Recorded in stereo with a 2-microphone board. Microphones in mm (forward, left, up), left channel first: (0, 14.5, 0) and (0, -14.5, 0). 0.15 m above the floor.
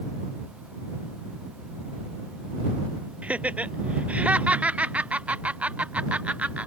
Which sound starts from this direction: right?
Laughter, at 3.2 s.